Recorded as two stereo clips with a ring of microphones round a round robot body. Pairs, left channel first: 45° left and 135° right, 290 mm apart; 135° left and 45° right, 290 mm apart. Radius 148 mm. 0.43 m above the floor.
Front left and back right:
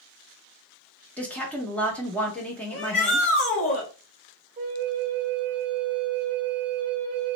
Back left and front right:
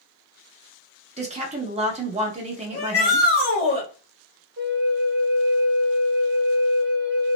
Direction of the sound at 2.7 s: 85° left.